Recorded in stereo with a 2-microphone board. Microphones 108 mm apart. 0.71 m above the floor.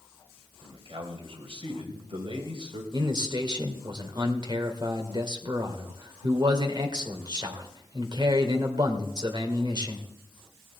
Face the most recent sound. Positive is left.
turn(degrees=-45)  # may be behind; listen again after turning